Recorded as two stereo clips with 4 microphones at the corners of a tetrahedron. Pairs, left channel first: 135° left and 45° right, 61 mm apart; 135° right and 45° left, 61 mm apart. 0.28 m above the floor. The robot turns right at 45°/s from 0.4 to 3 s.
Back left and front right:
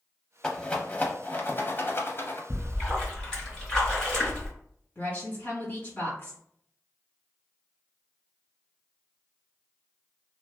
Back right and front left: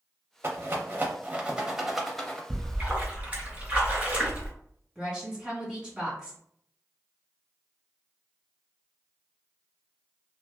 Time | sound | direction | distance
0.4 | a rattle | 65° left | 0.5 m
2.5 | a splash | 50° left | 1.7 m
5.0 | a woman speaking | 115° left | 1.9 m